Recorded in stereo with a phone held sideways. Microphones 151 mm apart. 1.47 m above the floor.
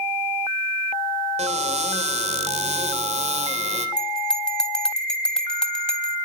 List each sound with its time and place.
1.4 s a cupboard door: 45° right (ahead or behind), 3 m
4.0 s a bell: 5° left (ahead or behind), 3 m